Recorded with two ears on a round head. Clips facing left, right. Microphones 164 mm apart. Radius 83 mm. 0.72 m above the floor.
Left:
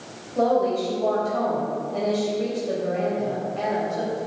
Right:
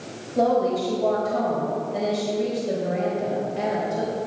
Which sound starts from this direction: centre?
A woman speaking, at 0.3 s.